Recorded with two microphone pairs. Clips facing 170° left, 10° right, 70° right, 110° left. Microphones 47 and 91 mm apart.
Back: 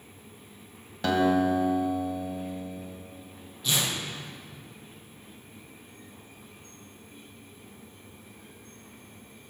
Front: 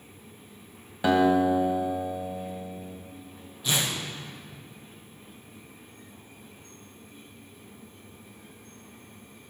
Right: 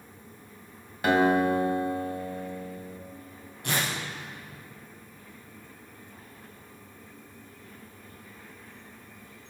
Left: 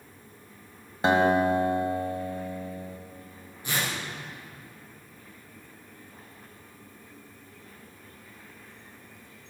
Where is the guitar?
55° left, 1.6 m.